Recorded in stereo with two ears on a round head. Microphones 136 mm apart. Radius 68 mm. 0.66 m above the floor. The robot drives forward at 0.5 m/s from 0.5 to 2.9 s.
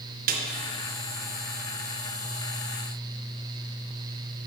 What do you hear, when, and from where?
0.3 s a snare drum: 60° right (ahead or behind), 0.7 m